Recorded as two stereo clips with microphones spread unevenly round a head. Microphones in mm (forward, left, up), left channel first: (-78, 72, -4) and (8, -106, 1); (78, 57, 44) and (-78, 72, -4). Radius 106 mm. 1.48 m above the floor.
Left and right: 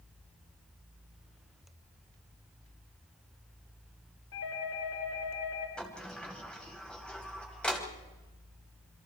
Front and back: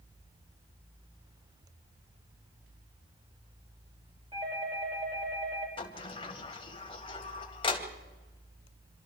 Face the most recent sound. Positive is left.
turn(degrees=30)